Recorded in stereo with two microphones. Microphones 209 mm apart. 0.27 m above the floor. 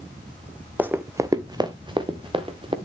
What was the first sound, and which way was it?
Running footsteps, 10° right (ahead or behind).